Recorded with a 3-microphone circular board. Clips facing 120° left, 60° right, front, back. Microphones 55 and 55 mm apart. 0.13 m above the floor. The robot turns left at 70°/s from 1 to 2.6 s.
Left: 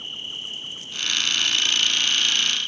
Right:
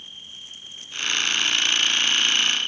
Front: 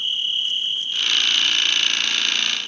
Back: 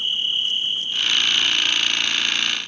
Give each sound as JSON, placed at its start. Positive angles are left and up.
{"t": 0.0, "sound": "an insect", "azimuth_deg": 105}